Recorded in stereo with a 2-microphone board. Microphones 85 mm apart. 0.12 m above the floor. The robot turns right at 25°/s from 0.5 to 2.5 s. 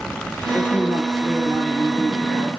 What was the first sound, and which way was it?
A man speaking, 20° right.